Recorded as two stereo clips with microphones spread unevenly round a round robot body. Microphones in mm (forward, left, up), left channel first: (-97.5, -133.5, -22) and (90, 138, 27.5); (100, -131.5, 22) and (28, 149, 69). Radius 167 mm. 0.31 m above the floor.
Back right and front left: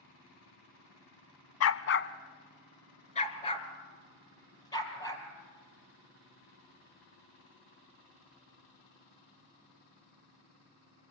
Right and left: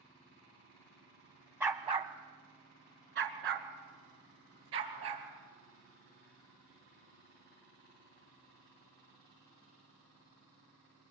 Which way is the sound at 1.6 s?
170° right.